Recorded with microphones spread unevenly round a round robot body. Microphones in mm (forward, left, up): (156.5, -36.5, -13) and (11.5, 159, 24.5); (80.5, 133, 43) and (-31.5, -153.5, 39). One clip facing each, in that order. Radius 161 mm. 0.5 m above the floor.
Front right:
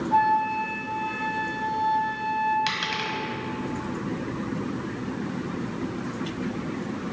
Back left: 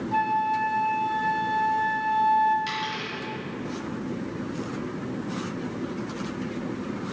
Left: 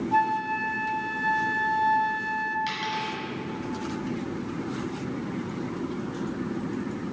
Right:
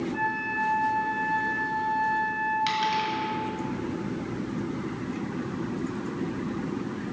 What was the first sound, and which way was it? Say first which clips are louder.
A flute: front right 2 dB, left 2 dB; 70° left.